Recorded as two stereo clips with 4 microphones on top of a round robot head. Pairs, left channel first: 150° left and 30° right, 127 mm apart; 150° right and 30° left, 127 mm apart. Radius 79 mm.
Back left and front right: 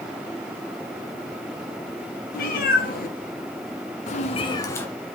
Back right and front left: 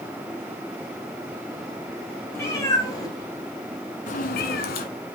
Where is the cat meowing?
140° left, 2.5 m; by 4.9 s 135° right, 1.2 m.